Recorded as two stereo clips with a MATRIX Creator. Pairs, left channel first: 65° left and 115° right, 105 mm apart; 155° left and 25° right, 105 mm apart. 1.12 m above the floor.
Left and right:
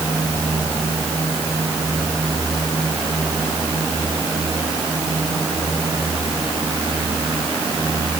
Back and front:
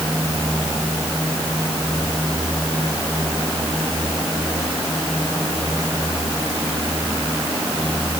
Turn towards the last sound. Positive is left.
No sound to turn to.